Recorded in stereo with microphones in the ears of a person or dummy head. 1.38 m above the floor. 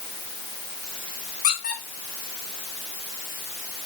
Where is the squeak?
45° left (ahead or behind), 3.5 m.